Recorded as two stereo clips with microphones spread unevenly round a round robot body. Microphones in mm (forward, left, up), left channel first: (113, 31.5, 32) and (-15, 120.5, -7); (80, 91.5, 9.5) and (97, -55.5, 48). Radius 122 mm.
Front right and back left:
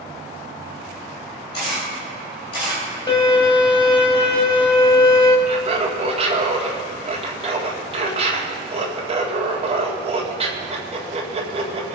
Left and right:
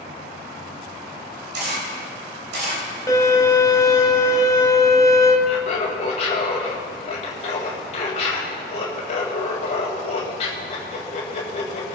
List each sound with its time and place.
1.5 s a camera shutter: 85° right, 3 m
3.1 s a violin: 25° left, 2.0 m
5.5 s laughter: 115° left, 1.8 m